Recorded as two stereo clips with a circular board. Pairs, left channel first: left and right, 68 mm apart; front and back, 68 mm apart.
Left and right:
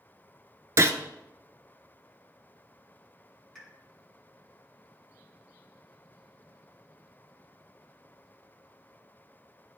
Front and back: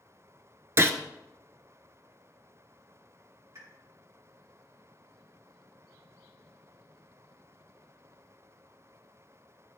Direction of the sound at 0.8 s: 130° right.